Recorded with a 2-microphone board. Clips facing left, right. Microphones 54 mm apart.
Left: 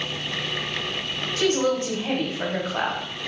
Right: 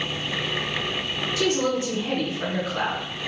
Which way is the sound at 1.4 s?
40° left (ahead or behind).